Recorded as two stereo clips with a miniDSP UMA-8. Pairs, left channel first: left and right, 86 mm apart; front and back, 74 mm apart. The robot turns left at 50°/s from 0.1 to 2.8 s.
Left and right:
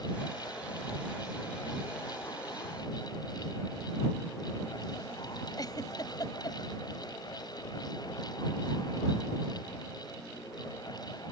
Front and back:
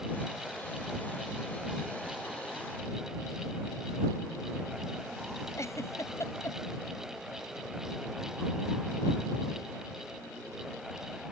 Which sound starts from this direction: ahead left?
A giggle, at 5.6 s.